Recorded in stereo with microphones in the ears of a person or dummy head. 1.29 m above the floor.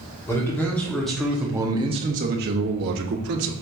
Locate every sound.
0.3 s a man speaking: 10° left (ahead or behind), 1.4 m; by 3.5 s 60° right (ahead or behind), 1.2 m